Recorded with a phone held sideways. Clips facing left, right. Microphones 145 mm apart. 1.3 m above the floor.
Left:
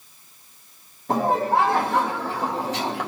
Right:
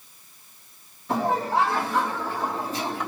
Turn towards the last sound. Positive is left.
turn(degrees=75)  # may be behind; listen again after turning